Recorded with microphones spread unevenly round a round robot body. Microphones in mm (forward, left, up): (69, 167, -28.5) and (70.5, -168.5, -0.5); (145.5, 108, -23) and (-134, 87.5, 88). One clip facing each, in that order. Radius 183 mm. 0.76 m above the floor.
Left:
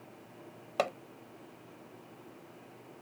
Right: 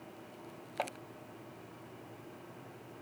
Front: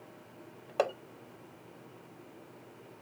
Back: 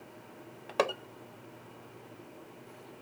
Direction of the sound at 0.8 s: 130° left.